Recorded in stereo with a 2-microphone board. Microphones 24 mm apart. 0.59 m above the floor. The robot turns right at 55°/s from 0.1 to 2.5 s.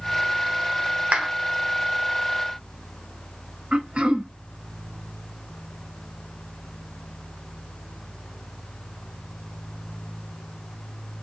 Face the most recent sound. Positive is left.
turn(degrees=-50)  # may be behind; listen again after turning